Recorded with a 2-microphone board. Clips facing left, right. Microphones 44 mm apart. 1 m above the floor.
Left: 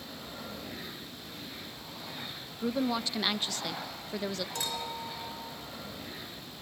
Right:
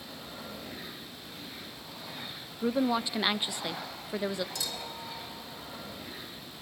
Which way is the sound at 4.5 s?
45° left (ahead or behind).